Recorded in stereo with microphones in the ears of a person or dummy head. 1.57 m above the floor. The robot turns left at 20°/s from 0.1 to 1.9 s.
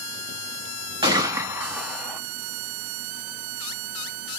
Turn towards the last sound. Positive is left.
turn(degrees=0)  # may be behind; listen again after turning